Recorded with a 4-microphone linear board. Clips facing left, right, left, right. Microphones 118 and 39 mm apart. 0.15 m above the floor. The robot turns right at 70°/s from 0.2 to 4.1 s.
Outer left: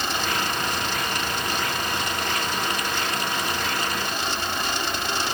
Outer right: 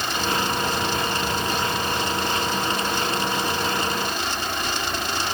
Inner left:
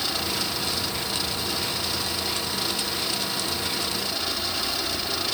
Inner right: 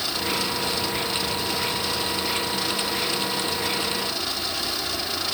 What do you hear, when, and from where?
Only background noise.